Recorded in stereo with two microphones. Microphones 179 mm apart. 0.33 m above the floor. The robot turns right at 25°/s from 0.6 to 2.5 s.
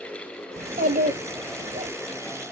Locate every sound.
0.6 s a child speaking: 90° right, 0.7 m; by 1.9 s 55° right, 0.7 m